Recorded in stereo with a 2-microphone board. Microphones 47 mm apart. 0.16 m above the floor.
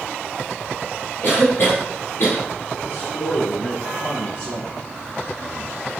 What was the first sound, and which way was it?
A cough, 60° left (ahead or behind).